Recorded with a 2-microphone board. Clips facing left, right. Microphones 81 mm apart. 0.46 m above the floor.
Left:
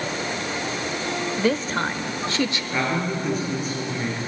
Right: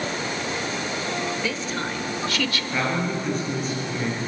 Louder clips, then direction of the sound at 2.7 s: Even; 5° left (ahead or behind).